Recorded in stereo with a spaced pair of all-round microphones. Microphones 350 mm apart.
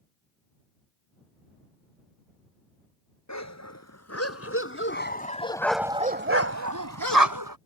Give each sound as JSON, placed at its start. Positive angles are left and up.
{"t": 3.3, "sound": "a dog barking", "side_deg": 50}